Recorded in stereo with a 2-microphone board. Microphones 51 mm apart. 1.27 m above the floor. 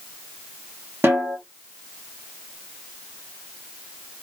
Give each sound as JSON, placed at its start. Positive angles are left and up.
{"t": 1.0, "sound": "a snare drum", "side_deg": -50, "distance_m": 1.6}